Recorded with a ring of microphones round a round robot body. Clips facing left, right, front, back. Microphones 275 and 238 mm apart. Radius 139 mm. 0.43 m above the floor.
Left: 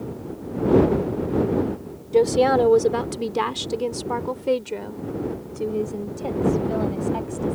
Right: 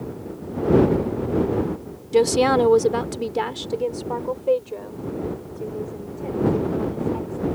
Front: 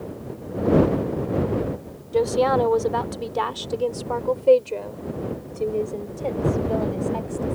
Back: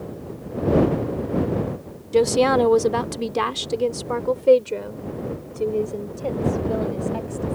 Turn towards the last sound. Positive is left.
turn(degrees=95)